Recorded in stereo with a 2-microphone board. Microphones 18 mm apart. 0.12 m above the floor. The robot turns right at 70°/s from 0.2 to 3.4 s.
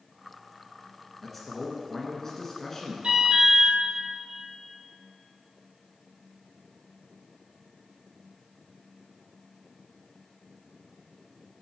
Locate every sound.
1.2 s a man speaking: 5° left (ahead or behind), 1.3 m; by 2.9 s 15° left (ahead or behind), 1.3 m
3.0 s an alarm: 75° right (ahead or behind), 2.5 m; by 3.7 s 55° right (ahead or behind), 2.5 m